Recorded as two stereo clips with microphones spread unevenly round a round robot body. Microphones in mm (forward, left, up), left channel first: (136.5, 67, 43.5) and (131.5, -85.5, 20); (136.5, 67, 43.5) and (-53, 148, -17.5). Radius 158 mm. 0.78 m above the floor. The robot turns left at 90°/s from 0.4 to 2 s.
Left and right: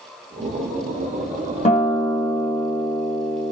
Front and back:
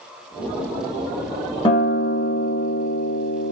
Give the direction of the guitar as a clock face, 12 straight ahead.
10 o'clock.